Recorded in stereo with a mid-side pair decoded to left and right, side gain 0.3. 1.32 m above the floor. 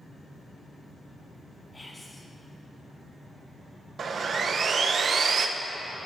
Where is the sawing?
70° right, 0.6 m.